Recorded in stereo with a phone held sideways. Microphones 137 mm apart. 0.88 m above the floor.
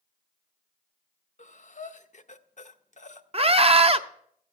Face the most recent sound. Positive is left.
turn(degrees=-45)  # may be behind; listen again after turning